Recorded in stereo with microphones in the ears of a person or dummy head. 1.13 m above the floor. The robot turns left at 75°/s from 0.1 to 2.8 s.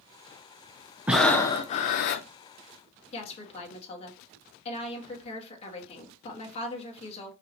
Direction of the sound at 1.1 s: 175° right.